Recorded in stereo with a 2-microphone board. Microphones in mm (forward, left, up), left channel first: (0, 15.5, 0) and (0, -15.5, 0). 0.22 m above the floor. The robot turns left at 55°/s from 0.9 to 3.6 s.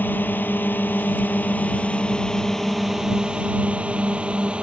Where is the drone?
75° left (ahead or behind); by 4.6 s 35° right (ahead or behind).